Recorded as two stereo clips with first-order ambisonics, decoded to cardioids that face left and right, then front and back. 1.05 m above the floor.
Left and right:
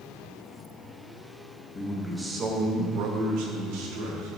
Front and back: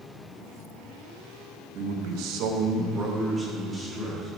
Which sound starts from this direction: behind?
A man speaking, at 1.8 s.